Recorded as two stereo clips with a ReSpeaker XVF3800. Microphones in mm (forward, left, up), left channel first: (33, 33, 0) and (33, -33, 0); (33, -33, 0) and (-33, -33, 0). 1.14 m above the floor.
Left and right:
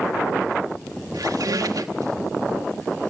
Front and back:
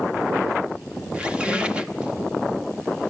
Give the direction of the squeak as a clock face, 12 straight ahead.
3 o'clock.